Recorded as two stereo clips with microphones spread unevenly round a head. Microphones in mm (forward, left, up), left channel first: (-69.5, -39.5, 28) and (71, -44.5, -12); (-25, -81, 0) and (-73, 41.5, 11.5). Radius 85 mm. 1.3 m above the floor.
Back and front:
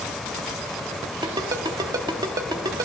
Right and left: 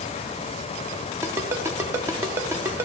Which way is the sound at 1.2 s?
70° left.